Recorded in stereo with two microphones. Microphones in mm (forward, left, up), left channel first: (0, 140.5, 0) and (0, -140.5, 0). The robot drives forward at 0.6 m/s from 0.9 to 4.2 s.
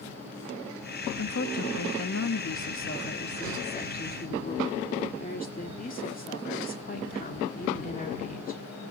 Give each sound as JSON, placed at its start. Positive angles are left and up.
{"t": 1.2, "sound": "a woman speaking", "side_deg": 55, "distance_m": 1.1}